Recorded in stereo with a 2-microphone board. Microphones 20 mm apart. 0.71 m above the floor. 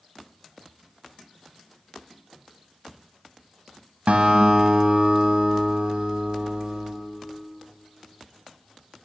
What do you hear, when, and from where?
4.1 s a guitar: 85° right, 1.6 m